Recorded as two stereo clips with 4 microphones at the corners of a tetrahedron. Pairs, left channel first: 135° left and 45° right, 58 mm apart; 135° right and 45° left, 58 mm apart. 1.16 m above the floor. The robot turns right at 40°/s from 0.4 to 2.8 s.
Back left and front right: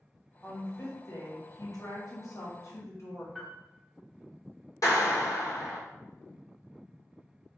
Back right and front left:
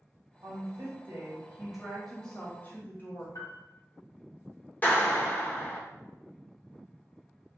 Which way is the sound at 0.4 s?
70° left.